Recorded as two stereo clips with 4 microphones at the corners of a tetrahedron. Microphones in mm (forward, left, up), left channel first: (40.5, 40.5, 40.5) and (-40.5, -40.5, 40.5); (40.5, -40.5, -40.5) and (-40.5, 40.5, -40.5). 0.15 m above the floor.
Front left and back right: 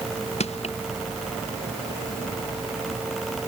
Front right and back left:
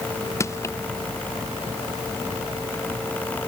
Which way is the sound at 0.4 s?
20° left.